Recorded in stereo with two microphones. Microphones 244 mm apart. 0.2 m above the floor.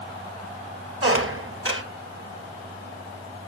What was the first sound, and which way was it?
A squeak, 55° right (ahead or behind).